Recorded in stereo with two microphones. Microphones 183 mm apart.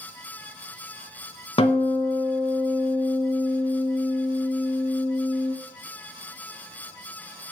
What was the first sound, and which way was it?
A guitar, 30° left (ahead or behind).